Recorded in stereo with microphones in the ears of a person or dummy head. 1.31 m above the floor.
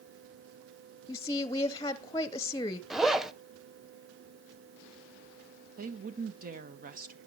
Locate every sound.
1.1 s a woman speaking: 15° left (ahead or behind), 0.5 m
2.9 s a zipper: 5° right (ahead or behind), 0.6 m
5.8 s a woman speaking: 40° right (ahead or behind), 1.0 m